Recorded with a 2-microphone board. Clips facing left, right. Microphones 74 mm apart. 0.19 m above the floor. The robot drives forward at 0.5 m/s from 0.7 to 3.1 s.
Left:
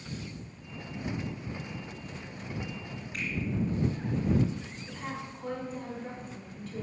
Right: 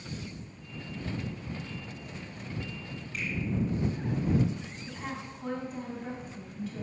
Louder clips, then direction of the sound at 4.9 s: Even; 5° right (ahead or behind).